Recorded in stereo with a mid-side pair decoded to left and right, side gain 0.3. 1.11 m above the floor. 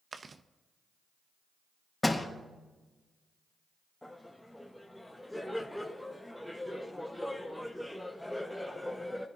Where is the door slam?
20° left, 3.5 m.